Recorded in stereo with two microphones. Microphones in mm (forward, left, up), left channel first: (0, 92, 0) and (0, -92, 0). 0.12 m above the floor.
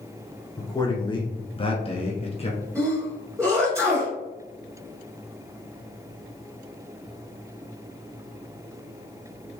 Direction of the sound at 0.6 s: 15° left (ahead or behind).